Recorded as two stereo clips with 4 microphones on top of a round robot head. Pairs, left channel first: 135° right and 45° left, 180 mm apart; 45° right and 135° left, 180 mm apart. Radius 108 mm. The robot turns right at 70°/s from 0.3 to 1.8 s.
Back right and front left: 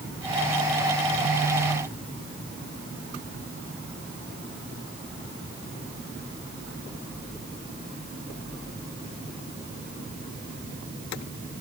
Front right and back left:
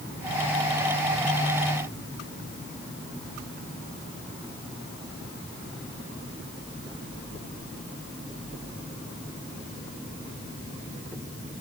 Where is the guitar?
I don't hear a guitar.